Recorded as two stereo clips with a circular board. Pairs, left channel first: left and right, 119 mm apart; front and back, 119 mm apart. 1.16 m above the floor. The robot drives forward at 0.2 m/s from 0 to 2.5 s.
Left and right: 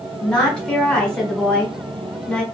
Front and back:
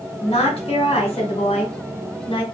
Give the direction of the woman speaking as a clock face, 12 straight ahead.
12 o'clock.